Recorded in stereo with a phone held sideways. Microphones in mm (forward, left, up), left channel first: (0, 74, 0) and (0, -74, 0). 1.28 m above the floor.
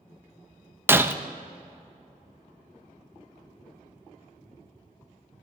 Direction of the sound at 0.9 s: 15° right (ahead or behind).